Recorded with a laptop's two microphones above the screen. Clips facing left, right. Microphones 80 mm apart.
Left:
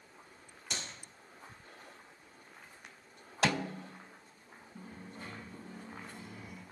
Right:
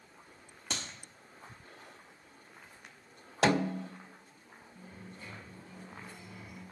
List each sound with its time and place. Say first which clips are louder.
0.7 s a clap: right 2 dB; 80° right, 2 m
3.4 s a snare drum: right 5 dB; 30° right (ahead or behind), 0.5 m
4.8 s a dropped coin: left 3 dB; 45° left (ahead or behind), 3 m